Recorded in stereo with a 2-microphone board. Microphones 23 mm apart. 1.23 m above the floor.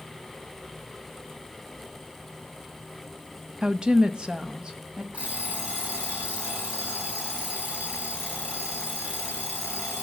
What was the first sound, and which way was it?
A woman speaking, 30° right (ahead or behind).